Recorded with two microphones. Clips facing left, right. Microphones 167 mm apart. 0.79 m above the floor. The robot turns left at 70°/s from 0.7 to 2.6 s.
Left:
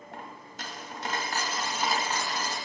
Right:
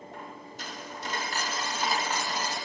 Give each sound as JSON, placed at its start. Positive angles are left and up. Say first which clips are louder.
{"t": 0.1, "sound": "a dropped coin", "louder": "left 1 dB", "azimuth_deg": 85, "distance_m": 2.0}